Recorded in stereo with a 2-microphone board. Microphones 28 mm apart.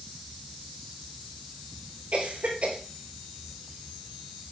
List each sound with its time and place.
2.1 s a cough: 70° right (ahead or behind), 4.5 m